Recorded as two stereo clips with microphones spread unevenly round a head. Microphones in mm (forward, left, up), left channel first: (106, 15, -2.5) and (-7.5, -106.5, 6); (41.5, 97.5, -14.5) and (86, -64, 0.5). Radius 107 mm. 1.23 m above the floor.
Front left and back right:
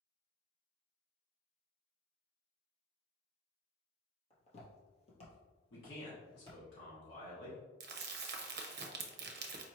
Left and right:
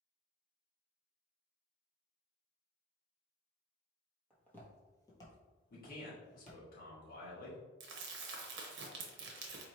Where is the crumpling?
105° right, 0.7 m.